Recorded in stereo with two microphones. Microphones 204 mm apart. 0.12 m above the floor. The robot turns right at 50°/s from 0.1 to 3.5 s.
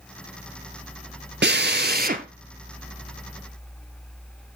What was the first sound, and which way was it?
A drill, 95° right.